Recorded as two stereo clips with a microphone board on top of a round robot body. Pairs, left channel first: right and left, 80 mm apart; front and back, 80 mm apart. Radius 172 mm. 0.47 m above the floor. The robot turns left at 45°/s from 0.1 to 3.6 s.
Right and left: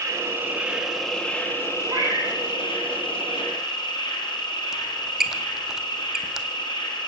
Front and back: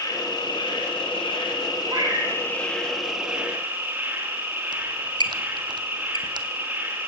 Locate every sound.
0.0 s an insect: 40° left, 5.5 m; by 7.1 s 115° right, 5.5 m
1.9 s a cat meowing: 140° left, 7.5 m; by 2.4 s 120° left, 7.5 m
4.7 s a squeak: 175° left, 1.5 m